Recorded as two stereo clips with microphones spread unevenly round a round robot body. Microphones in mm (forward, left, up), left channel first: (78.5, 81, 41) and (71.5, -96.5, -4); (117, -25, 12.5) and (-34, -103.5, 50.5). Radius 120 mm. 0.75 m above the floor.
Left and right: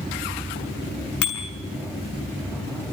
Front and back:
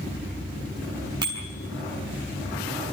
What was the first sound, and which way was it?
A bicycle bell, 135° left.